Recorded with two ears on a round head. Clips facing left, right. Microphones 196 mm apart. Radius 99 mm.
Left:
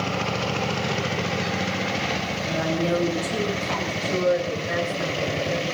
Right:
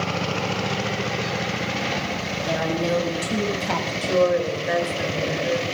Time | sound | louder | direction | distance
2.5 | a woman speaking | right 1 dB | 65° right (ahead or behind) | 5.5 m
4.0 | a woman speaking | right 3 dB | 65° right (ahead or behind) | 3.5 m